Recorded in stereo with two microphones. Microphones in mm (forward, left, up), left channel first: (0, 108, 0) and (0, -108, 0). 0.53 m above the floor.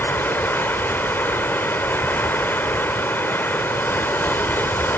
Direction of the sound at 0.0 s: 10° left (ahead or behind).